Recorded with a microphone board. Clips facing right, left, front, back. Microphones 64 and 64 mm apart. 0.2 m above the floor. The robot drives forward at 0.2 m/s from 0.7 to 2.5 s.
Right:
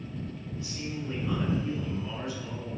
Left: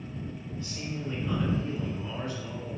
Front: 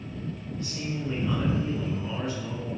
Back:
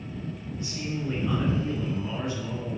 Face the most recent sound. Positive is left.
turn(degrees=-145)